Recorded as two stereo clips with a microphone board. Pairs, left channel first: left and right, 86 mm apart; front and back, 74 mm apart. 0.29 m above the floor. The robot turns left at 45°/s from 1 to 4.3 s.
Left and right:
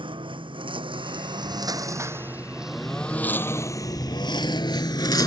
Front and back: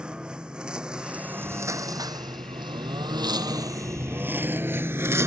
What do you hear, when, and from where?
0.0 s a lawn mower: 100° right; by 5.3 s 130° left